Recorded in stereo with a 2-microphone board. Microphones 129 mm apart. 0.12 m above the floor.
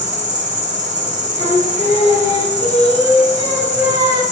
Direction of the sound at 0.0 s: 75° right (ahead or behind).